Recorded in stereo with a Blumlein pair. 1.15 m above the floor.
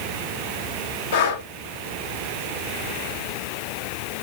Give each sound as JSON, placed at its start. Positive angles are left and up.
{"t": 1.1, "sound": "breathing", "azimuth_deg": 55, "distance_m": 0.8}